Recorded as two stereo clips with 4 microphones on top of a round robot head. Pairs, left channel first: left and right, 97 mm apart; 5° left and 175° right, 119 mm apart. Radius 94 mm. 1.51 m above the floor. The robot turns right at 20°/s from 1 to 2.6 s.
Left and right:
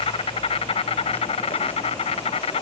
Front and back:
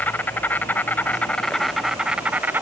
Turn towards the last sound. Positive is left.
turn(degrees=110)